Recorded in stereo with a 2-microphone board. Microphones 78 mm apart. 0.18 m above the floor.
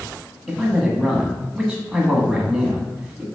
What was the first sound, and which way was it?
A man speaking, 5° right (ahead or behind).